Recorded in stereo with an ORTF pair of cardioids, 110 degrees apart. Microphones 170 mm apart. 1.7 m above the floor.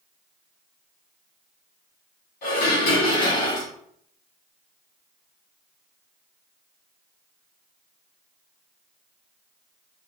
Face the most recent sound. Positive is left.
turn(degrees=70)